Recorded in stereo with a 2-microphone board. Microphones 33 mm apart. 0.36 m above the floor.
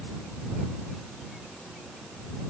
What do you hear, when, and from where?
Only background noise.